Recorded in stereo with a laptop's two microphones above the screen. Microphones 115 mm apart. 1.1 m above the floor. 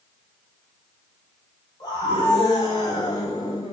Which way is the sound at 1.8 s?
40° left (ahead or behind).